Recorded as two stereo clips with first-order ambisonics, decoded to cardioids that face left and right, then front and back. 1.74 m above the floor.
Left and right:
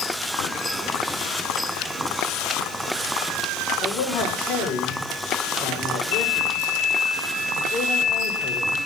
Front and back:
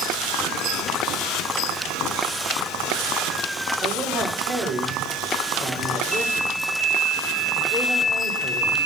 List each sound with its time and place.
3.8 s a man speaking: 135° left, 5 m